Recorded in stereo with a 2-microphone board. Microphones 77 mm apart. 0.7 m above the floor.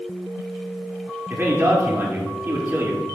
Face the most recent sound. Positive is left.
turn(degrees=-30)  # may be behind; listen again after turning